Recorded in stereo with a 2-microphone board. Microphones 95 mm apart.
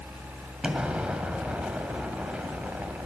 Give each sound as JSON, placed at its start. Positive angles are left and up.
{"t": 0.6, "sound": "an explosion", "side_deg": -10, "distance_m": 1.8}